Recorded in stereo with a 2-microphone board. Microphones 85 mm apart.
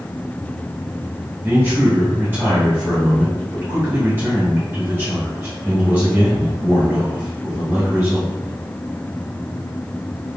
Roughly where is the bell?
No bell in this recording.